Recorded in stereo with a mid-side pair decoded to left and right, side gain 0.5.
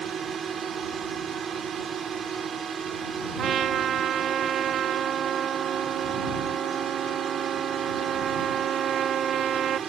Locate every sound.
0.0 s a drone: 45° right
3.4 s a trumpet: 55° right